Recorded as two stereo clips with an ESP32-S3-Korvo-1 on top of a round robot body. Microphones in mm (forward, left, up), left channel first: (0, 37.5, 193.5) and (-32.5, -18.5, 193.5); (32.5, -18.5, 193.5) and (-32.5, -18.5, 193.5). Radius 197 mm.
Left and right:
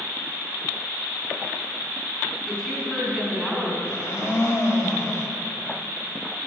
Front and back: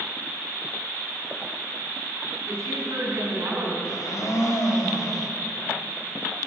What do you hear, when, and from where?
2.5 s a woman speaking: 155° left, 2.5 m
3.8 s a blender: 15° left, 1.3 m